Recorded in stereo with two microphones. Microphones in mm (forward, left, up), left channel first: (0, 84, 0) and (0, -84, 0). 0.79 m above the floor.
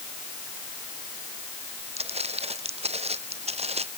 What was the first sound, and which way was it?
Footsteps, 40° right (ahead or behind).